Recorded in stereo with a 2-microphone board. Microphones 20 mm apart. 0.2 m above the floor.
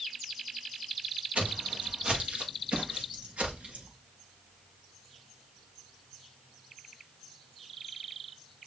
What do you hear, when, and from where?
1.4 s footsteps: 85° right, 3 m